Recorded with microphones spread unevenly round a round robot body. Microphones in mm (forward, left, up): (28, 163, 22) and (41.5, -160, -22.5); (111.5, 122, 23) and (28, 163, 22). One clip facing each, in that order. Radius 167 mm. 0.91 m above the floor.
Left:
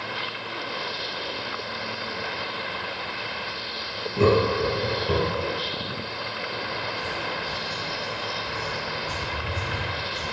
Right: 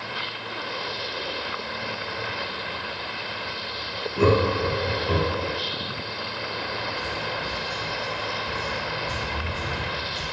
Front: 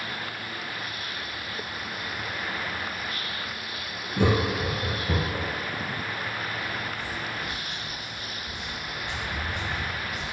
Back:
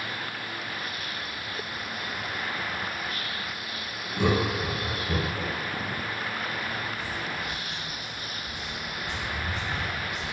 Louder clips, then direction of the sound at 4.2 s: Left 1 dB, front 1 dB; 5° left.